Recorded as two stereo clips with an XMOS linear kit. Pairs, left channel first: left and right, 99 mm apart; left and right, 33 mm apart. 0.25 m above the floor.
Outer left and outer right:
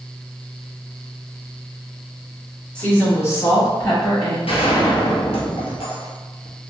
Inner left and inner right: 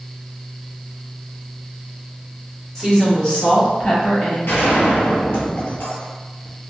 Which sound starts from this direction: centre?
A woman speaking, at 2.8 s.